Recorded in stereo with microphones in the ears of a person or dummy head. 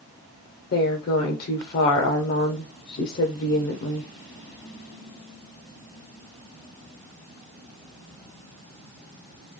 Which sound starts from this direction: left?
A woman speaking, at 0.7 s.